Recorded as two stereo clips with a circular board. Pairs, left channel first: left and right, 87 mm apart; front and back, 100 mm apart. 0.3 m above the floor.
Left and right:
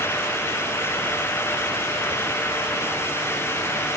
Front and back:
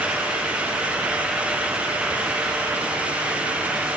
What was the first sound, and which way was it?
Only background noise.